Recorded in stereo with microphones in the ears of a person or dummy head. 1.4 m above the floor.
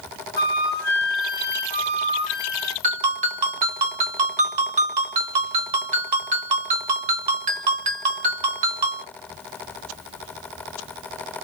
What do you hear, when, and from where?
0.4 s a flute: 10° left (ahead or behind), 1.2 m
2.8 s a ringtone: 45° right (ahead or behind), 0.8 m